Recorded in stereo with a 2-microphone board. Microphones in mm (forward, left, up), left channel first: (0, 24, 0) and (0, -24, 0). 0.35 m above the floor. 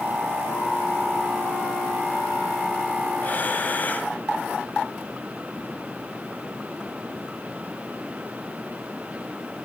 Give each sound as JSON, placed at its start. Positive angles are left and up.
{"t": 3.2, "sound": "breathing", "side_deg": 35, "distance_m": 1.1}